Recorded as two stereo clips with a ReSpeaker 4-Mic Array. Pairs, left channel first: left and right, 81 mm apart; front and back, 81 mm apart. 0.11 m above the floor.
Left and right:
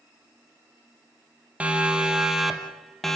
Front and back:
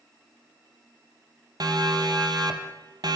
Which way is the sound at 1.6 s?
160° right.